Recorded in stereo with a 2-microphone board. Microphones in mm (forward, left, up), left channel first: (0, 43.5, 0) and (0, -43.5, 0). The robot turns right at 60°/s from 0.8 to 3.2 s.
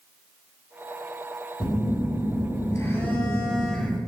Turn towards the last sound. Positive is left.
turn(degrees=175)